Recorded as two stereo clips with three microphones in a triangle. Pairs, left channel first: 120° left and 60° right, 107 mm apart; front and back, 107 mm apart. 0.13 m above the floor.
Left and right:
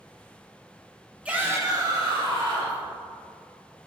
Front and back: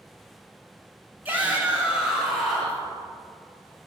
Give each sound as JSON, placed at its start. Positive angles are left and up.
{"t": 1.2, "sound": "a shout", "azimuth_deg": -125, "distance_m": 1.2}